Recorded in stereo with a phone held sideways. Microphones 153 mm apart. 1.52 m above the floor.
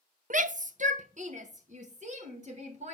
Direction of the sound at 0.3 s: 60° right (ahead or behind).